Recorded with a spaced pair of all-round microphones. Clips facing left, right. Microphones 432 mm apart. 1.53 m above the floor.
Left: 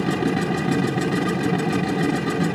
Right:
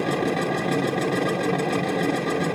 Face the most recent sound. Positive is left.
turn(degrees=25)  # may be behind; listen again after turning